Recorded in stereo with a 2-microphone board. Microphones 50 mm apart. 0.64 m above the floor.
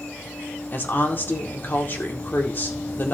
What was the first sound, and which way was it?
A woman speaking, 40° left (ahead or behind).